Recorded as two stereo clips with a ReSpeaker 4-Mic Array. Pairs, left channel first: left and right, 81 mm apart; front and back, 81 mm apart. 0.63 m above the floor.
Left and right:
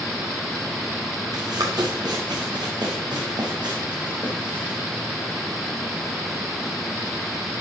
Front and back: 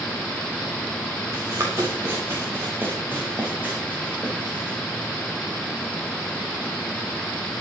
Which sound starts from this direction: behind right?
Running footsteps, at 1.3 s.